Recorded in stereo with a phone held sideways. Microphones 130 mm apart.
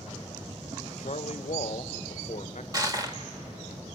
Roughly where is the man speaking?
Left.